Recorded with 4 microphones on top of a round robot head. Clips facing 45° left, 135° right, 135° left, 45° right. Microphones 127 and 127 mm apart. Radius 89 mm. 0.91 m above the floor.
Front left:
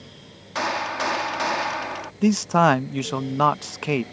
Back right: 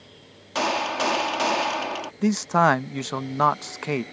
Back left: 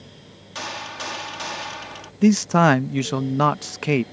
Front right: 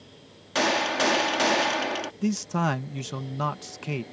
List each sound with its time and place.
0.6 s a gunshot: 65° right
2.2 s a man speaking: 125° left